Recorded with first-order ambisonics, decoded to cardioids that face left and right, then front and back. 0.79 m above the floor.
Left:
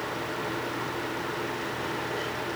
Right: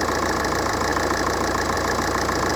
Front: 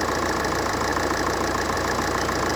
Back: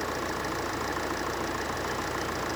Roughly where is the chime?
No chime in this recording.